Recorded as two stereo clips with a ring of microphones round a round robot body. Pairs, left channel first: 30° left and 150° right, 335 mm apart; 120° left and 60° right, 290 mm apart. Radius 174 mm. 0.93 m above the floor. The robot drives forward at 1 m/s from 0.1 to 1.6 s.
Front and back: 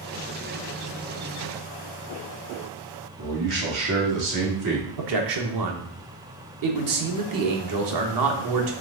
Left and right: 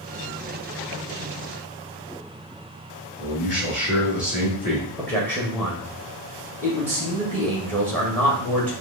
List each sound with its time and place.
3.2 s a man speaking: 175° right, 1.9 m
5.0 s a man speaking: 160° right, 1.1 m